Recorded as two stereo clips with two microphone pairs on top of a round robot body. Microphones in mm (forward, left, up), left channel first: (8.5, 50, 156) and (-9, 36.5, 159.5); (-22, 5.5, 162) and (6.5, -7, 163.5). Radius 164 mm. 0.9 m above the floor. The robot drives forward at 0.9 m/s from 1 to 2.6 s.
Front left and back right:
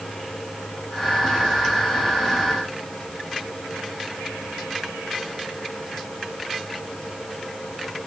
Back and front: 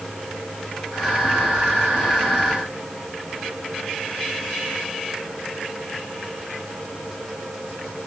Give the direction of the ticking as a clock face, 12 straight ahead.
No ticking in this recording.